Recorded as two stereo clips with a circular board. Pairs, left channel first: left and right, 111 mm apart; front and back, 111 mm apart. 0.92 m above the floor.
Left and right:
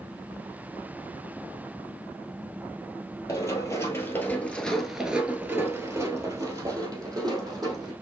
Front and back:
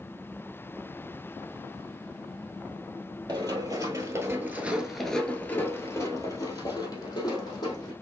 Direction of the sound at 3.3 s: 140° left.